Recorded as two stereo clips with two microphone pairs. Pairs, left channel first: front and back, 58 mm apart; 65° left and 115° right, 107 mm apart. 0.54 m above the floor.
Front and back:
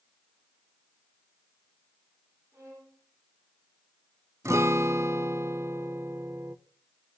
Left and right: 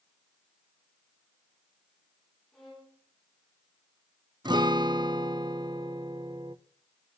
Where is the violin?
155° left, 6 m.